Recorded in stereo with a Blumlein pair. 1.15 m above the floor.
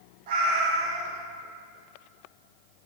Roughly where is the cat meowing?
Ahead right.